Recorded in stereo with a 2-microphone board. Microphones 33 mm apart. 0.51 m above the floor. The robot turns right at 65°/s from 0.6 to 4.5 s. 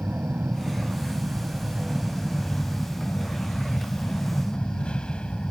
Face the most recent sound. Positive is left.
turn(degrees=150)